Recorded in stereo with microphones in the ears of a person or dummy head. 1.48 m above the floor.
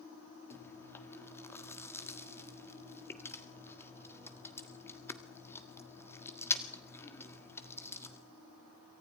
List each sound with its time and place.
0.5 s chewing: 15° left (ahead or behind), 1.5 m